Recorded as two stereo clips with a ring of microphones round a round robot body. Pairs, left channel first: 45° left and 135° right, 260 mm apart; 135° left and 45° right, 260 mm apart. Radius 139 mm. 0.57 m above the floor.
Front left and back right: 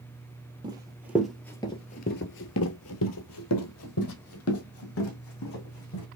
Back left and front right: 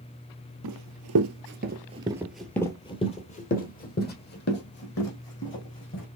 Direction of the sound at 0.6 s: 60° right.